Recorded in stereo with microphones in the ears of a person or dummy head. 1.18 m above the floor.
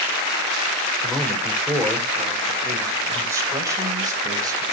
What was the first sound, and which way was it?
A man speaking, centre (ahead or behind).